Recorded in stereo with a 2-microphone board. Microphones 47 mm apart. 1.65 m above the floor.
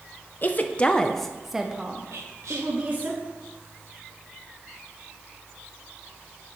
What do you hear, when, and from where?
0.4 s a woman speaking: 40° left (ahead or behind), 0.8 m; by 3.1 s 40° right (ahead or behind), 1.4 m
2.1 s whispering: 75° right (ahead or behind), 1.6 m